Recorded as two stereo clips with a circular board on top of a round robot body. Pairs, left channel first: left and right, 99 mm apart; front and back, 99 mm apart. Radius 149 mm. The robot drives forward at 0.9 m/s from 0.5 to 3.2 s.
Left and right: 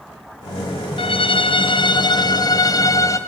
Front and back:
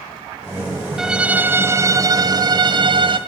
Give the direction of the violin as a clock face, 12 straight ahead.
9 o'clock.